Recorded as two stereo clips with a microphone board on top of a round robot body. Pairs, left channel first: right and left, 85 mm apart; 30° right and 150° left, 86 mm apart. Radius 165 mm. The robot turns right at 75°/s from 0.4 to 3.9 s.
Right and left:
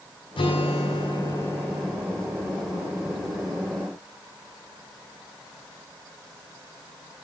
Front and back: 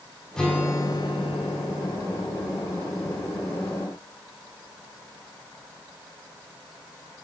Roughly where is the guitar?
Right.